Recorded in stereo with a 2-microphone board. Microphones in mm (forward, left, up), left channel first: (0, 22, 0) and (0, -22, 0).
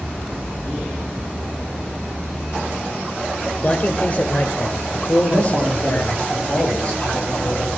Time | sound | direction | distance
3.6 | a man speaking | 35° left (ahead or behind) | 1.3 m
5.3 | a man speaking | 30° left (ahead or behind) | 7 m